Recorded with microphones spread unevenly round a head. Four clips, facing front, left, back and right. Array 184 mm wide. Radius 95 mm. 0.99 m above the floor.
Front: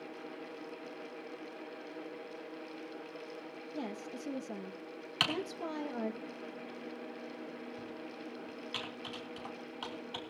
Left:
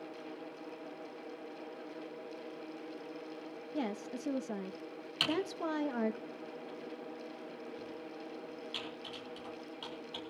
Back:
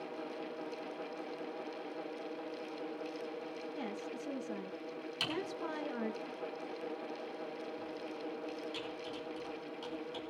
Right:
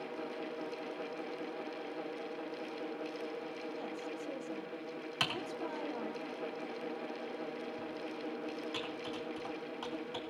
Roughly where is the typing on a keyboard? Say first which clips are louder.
Left 5 dB, front 3 dB; ahead right.